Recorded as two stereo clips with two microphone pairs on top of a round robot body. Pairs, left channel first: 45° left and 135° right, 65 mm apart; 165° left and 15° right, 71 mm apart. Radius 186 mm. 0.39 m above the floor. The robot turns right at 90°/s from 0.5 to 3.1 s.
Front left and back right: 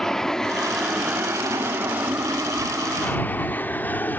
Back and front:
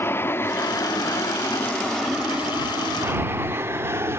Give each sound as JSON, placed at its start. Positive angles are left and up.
{"t": 0.0, "sound": "an aircraft", "azimuth_deg": 130}